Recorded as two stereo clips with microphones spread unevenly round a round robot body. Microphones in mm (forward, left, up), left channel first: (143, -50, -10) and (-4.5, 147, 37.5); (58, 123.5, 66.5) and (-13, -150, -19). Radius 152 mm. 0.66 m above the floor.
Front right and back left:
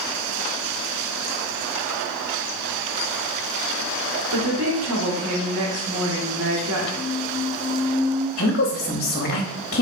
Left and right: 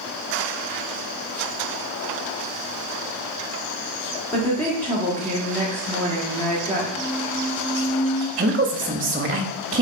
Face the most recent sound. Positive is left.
turn(degrees=-70)